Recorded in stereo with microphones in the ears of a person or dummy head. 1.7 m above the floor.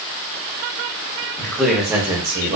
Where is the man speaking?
15° left (ahead or behind), 0.7 m; by 2.6 s 35° right (ahead or behind), 0.8 m.